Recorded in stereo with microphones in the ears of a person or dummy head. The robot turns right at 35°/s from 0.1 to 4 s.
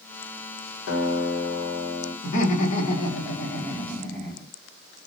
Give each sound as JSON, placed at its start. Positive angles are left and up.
{"t": 0.9, "sound": "a guitar", "azimuth_deg": 75, "distance_m": 0.9}
{"t": 2.2, "sound": "laughter", "azimuth_deg": 120, "distance_m": 0.7}